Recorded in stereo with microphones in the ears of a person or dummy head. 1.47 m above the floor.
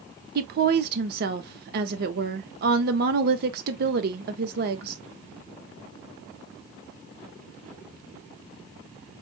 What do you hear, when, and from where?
0.3 s a woman speaking: 50° right (ahead or behind), 0.8 m